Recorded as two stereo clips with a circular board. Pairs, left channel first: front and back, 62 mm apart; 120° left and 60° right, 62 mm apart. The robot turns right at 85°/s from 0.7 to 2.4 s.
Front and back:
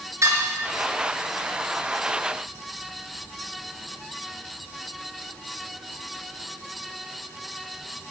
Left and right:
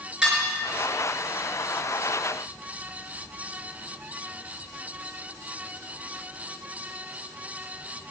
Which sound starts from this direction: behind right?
Dishes clattering, at 0.2 s.